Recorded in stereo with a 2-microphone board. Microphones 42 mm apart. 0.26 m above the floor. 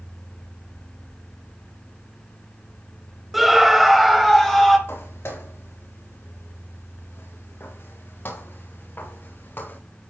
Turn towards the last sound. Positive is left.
turn(degrees=50)  # may be behind; listen again after turning